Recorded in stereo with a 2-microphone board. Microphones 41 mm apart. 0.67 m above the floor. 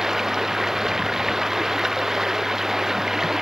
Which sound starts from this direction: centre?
Running water, at 0.0 s.